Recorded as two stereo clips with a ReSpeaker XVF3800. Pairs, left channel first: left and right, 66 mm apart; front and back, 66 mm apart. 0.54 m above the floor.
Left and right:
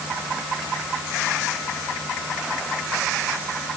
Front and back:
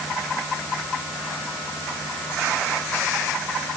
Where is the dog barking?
No dog barking in this recording.